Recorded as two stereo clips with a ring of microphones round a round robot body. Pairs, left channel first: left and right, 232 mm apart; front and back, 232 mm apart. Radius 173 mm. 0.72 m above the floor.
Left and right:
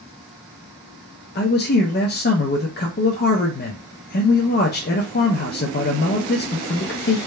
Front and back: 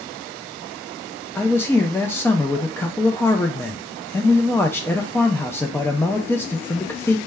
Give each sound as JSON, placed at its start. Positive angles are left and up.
{"t": 1.4, "sound": "a man speaking", "azimuth_deg": 80, "distance_m": 0.5}